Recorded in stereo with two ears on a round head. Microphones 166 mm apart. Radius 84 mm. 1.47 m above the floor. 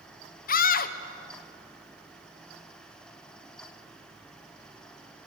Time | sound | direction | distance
0.5 | a scream | 50° left (ahead or behind) | 1.0 m